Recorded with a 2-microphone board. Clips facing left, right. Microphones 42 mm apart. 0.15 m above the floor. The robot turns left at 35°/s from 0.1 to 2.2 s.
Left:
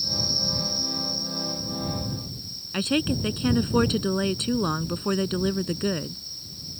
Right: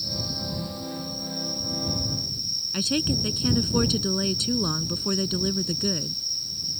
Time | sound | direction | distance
0.0 | an insect | 15° right | ?
2.7 | a woman speaking | 25° left (ahead or behind) | ?